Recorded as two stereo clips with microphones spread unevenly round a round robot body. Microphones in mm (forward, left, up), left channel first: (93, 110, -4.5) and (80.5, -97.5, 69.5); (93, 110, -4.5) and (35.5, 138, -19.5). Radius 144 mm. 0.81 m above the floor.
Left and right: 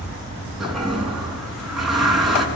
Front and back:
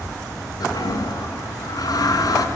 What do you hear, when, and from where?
0.6 s a toilet flushing: 5° right, 5 m